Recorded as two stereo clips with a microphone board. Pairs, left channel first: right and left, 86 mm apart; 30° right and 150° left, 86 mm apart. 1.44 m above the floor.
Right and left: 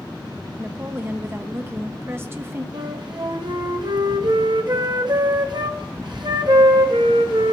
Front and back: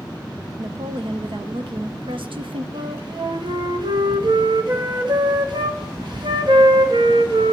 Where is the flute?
125° left, 1.0 m.